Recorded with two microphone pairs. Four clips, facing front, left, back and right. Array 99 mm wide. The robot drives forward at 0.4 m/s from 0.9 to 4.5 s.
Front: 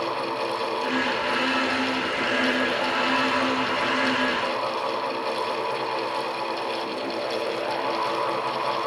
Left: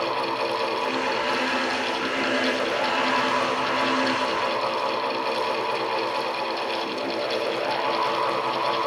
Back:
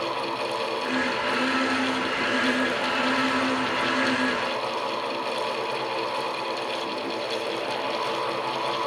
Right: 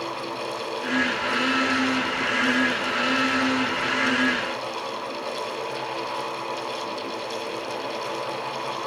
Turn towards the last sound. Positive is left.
No sound to turn to.